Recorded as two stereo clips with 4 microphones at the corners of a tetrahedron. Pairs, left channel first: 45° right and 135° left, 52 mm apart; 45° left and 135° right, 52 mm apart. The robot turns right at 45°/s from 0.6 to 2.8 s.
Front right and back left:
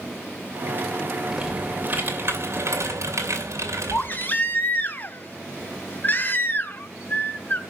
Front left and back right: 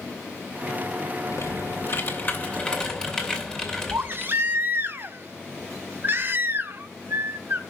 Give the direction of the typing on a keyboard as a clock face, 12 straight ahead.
10 o'clock.